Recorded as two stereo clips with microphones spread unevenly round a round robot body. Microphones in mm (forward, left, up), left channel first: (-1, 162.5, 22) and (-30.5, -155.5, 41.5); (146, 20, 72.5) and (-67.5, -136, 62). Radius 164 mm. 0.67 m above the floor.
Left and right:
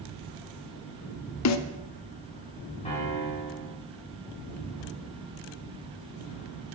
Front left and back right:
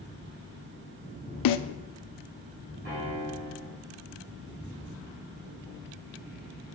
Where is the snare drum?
40° left, 0.5 m.